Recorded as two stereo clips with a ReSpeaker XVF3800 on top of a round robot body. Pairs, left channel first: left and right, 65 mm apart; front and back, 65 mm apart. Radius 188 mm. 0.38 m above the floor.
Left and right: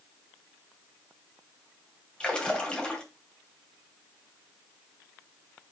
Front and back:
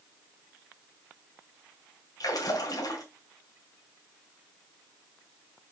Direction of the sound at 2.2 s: 15° left.